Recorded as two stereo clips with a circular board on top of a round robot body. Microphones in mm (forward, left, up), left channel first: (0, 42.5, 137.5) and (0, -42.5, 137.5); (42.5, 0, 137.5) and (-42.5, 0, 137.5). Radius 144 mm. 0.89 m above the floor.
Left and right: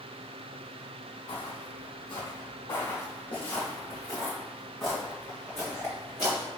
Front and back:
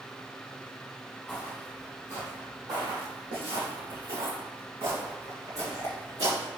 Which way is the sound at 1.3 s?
100° left.